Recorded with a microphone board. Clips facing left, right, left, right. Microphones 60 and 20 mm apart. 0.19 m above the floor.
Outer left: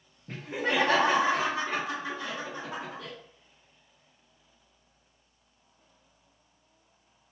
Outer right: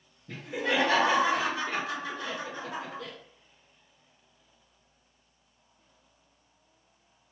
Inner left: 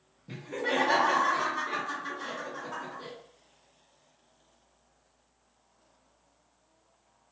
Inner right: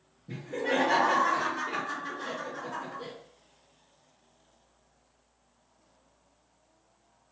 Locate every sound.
0.3 s laughter: 45° left (ahead or behind), 1.7 m; by 3.1 s 10° left (ahead or behind), 1.8 m